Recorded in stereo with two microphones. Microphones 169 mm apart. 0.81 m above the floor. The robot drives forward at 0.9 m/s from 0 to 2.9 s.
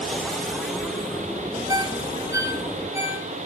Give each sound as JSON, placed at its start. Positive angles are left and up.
{"t": 1.7, "sound": "a ringtone", "side_deg": -25, "distance_m": 2.0}